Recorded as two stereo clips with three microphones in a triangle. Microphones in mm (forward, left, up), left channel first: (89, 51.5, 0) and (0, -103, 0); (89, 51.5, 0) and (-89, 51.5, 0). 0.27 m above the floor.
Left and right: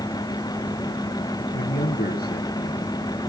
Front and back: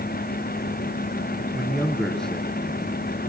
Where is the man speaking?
85° left, 5 m.